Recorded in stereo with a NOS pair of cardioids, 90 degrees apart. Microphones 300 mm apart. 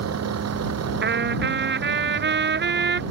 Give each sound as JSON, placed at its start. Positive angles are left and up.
{"t": 0.0, "sound": "a vehicle", "azimuth_deg": -60}
{"t": 1.0, "sound": "a trumpet", "azimuth_deg": -40}